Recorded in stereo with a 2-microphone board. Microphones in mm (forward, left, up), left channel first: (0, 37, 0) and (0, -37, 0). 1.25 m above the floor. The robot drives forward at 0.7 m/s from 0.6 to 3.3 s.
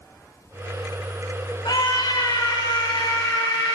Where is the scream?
75° left (ahead or behind), 5 m; by 3.8 s 85° left, 5 m.